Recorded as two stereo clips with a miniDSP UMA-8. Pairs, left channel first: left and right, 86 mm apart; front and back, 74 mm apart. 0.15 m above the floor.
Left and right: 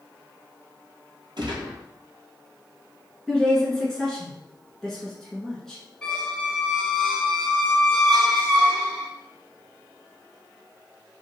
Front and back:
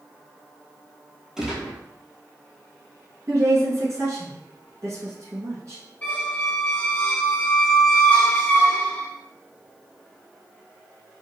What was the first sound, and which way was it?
A gunshot, 100° right.